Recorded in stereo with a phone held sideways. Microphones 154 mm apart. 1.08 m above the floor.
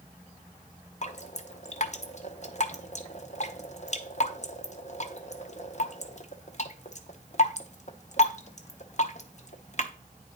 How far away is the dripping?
About 0.8 m.